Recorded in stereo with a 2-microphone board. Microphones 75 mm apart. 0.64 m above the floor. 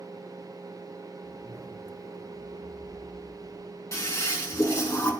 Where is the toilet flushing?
40° left (ahead or behind), 2.5 m.